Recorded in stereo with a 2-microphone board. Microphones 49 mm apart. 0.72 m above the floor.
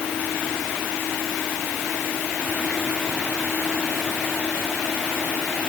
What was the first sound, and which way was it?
Only background noise.